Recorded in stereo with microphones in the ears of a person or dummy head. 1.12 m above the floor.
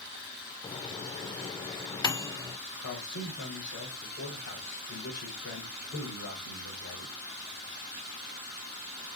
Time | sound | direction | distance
0.6 | a microwave | 25° left (ahead or behind) | 0.5 m
2.8 | a man speaking | 70° left (ahead or behind) | 5 m